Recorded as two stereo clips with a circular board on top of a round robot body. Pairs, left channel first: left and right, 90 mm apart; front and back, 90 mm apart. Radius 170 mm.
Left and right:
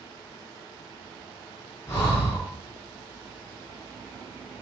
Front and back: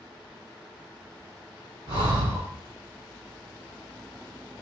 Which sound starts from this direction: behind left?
Breathing, at 1.9 s.